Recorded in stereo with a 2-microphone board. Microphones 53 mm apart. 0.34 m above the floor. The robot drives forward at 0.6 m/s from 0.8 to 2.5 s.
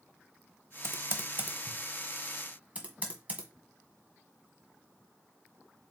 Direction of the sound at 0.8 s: 55° right (ahead or behind).